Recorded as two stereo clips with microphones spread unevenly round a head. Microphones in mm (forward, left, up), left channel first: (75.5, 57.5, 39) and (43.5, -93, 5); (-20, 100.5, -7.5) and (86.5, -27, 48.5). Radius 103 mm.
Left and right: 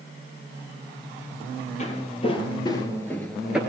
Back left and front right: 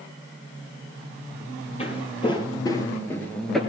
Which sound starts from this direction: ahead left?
Footsteps, at 1.8 s.